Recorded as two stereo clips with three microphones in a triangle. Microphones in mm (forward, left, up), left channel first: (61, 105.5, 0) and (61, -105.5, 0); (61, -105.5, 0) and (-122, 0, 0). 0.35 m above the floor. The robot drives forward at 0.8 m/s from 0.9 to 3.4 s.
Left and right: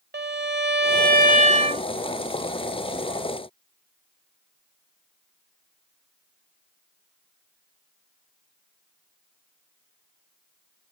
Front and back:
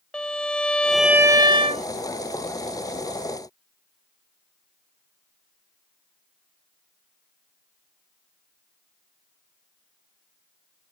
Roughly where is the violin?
Behind right.